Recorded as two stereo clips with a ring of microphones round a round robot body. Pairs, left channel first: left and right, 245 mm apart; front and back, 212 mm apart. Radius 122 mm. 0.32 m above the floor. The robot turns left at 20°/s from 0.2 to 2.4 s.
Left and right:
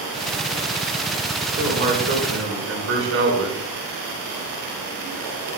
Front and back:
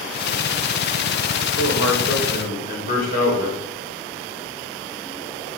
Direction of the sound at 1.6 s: 40° right.